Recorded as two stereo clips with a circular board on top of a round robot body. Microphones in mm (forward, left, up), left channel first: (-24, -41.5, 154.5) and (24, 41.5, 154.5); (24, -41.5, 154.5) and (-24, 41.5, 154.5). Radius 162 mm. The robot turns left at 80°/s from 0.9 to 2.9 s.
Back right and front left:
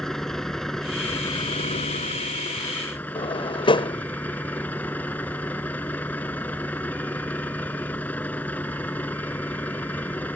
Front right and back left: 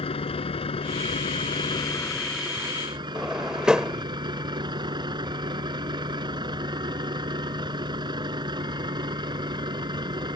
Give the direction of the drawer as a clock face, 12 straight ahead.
5 o'clock.